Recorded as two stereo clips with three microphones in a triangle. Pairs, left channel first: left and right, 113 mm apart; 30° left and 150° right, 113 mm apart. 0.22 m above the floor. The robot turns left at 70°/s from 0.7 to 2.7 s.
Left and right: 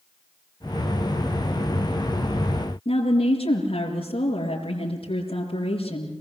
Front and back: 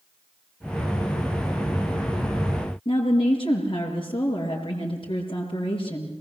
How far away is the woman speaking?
About 4 m.